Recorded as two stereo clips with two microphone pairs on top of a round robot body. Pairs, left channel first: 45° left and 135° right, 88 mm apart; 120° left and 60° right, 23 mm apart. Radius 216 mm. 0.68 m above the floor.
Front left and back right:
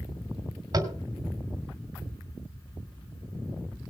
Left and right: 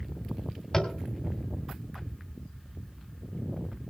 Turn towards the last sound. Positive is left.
turn(degrees=-175)